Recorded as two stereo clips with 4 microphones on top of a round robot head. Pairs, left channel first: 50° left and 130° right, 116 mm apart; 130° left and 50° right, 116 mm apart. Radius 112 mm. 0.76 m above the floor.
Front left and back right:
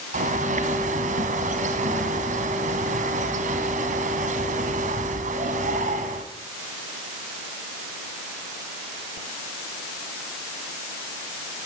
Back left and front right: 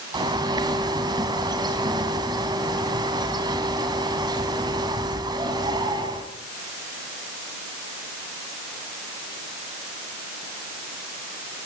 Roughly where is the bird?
Right.